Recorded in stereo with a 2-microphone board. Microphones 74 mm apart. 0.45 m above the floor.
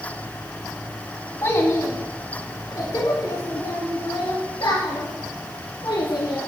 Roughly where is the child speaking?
Left.